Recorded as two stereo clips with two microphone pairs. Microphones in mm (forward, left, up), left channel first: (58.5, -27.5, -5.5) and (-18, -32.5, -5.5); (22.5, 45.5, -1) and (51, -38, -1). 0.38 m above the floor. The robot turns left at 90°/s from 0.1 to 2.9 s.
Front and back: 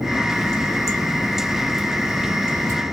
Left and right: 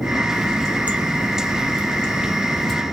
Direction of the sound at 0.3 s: 50° left.